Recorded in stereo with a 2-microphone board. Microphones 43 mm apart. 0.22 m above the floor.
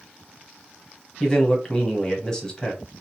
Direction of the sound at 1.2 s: 20° left (ahead or behind).